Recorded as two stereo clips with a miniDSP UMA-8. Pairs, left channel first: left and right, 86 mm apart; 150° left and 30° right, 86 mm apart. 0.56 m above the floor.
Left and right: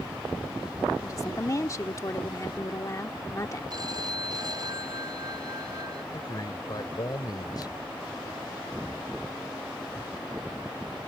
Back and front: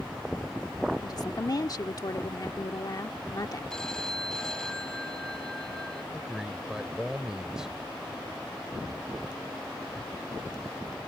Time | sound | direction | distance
1.0 | a woman speaking | 130° left | ?
3.7 | a phone ringing | 125° right | ?
6.1 | a man speaking | 50° left | ?